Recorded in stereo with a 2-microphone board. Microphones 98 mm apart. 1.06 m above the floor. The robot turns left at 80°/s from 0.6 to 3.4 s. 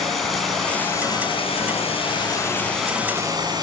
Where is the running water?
Straight behind, 7.5 m; by 3.6 s 45° right, 7.5 m.